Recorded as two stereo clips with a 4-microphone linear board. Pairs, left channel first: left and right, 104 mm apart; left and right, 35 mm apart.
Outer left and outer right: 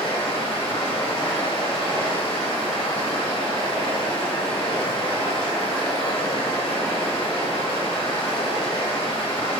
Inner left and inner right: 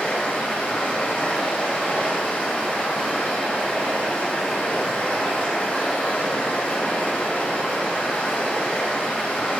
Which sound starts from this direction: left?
Running water, at 0.0 s.